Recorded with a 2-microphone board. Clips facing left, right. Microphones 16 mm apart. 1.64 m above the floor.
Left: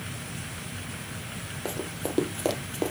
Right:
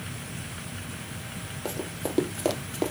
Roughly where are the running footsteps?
Centre.